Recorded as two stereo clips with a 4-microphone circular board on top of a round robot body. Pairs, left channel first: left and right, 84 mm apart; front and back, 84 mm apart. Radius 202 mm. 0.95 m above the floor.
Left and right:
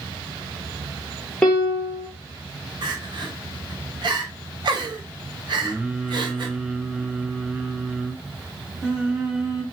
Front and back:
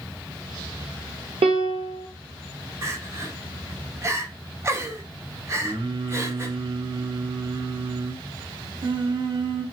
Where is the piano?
170° left, 0.5 m.